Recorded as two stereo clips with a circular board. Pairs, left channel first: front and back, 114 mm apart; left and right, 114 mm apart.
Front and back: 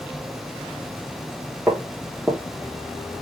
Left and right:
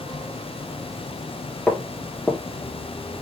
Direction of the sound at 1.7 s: 175° right.